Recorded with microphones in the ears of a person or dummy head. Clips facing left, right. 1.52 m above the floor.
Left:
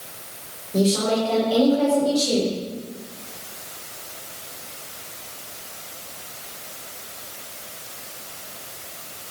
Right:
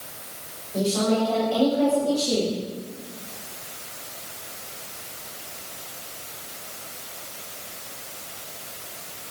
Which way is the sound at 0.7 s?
50° left (ahead or behind).